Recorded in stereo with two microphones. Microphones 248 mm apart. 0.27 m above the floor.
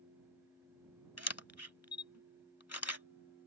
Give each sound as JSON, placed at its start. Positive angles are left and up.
{"t": 1.2, "sound": "a camera shutter", "side_deg": 80}